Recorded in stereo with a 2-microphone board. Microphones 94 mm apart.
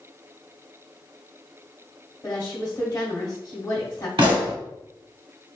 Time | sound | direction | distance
2.2 | a woman speaking | 35° left (ahead or behind) | 1.4 m
4.2 | a pop | 60° right (ahead or behind) | 1.8 m